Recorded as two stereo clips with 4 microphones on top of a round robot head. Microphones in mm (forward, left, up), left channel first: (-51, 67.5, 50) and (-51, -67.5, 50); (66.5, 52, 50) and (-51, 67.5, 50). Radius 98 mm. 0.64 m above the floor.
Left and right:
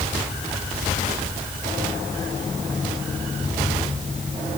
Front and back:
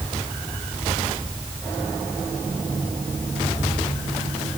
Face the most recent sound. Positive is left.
No sound to turn to.